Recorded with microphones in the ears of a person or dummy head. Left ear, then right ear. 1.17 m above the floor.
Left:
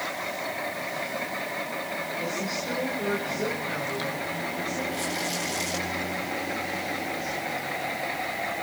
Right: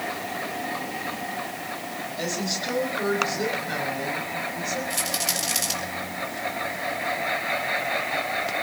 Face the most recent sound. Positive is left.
turn(degrees=-65)  # may be behind; listen again after turning